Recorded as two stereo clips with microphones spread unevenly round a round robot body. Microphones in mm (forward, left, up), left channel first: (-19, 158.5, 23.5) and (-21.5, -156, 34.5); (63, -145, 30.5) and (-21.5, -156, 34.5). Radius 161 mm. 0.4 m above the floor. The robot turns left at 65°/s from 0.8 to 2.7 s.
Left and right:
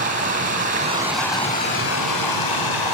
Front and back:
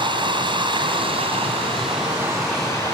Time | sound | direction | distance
0.0 | running water | 155° right | 2.5 m